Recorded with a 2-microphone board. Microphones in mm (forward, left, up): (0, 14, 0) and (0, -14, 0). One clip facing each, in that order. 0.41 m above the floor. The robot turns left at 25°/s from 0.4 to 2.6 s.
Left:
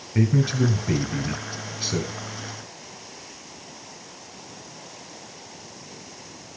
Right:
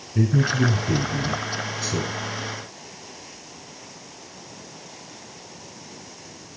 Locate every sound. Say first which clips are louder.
0.1 s a man speaking: right 1 dB; 85° left, 2.5 m; by 2.1 s 40° left, 2.5 m